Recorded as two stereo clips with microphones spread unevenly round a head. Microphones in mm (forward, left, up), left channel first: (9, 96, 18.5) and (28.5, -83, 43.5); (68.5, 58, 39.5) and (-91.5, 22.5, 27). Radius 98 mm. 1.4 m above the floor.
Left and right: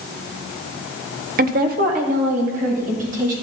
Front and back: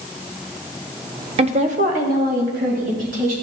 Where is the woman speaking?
120° right, 0.6 m; by 3.3 s 130° right, 3 m.